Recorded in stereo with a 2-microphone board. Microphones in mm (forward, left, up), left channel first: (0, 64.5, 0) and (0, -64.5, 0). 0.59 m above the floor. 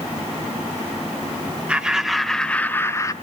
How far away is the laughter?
About 1.0 m.